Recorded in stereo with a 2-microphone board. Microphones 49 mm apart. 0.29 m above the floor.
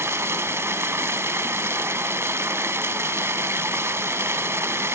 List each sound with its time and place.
0.0 s running water: 60° right (ahead or behind), 0.8 m